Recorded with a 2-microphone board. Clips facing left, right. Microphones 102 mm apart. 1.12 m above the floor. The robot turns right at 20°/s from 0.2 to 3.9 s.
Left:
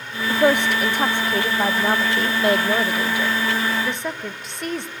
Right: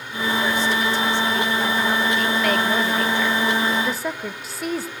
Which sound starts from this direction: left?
A woman speaking, at 0.3 s.